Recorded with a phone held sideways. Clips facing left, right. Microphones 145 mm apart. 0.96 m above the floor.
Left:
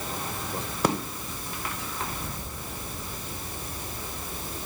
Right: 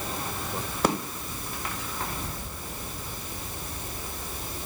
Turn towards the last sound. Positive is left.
No sound to turn to.